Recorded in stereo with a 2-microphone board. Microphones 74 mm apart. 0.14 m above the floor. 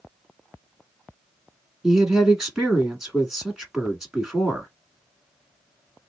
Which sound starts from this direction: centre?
A woman speaking, at 1.8 s.